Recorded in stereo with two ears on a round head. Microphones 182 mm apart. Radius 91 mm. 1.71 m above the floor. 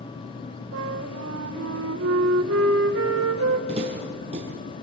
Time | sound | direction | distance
0.7 | a flute | 70° right (ahead or behind) | 2.0 m
3.7 | footsteps | 30° right (ahead or behind) | 3.5 m